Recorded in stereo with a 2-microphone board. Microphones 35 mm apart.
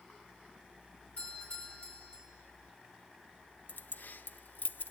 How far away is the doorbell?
About 8 m.